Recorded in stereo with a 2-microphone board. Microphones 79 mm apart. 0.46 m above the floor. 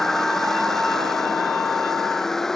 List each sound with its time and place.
0.0 s a vehicle: 5° left (ahead or behind)